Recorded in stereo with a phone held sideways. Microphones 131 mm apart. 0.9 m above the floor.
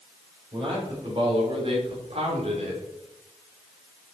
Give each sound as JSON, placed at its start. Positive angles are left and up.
{"t": 0.5, "sound": "a man speaking", "side_deg": -40, "distance_m": 4.0}